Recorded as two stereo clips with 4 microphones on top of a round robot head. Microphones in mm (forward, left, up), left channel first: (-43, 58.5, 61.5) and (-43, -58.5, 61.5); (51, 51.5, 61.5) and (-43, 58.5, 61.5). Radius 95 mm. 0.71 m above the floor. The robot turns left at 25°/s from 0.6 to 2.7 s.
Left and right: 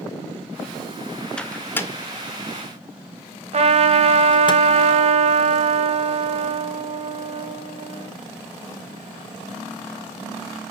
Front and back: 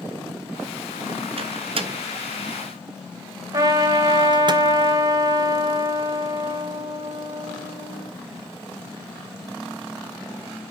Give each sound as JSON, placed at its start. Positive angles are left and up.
{"t": 1.4, "sound": "a microwave", "azimuth_deg": 175, "distance_m": 1.9}
{"t": 3.5, "sound": "a trumpet", "azimuth_deg": -120, "distance_m": 2.5}